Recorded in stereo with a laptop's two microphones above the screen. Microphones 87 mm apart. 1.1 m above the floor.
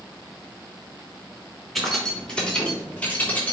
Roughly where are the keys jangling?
Centre.